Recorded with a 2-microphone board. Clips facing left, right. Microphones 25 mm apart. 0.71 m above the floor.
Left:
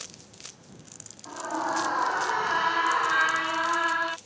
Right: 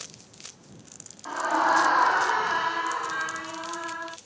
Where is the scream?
55° right (ahead or behind); by 4.2 s 60° left (ahead or behind).